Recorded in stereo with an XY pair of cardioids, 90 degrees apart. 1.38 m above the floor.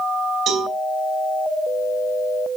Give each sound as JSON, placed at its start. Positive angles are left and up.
{"t": 0.5, "sound": "a cowbell", "azimuth_deg": -70, "distance_m": 3.5}